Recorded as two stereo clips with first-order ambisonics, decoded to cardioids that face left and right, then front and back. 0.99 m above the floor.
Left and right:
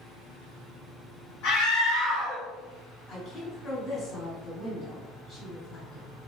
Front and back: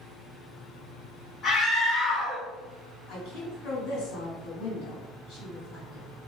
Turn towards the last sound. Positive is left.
turn(degrees=15)